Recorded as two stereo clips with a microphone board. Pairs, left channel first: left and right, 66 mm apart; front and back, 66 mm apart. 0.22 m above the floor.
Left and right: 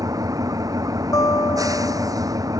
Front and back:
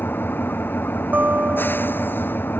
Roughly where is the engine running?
Ahead right.